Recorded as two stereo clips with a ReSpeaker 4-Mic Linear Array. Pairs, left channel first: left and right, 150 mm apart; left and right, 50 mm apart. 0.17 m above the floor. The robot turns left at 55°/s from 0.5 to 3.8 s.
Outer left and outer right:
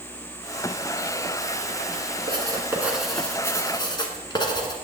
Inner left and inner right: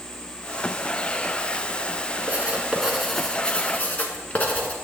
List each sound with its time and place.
2.3 s writing: 135° right, 1.4 m; by 4.7 s 140° left, 1.4 m